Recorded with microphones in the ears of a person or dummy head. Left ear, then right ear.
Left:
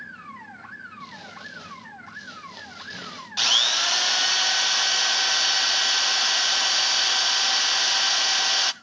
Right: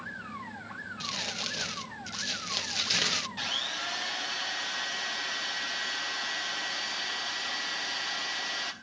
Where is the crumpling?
75° right (ahead or behind), 0.9 m.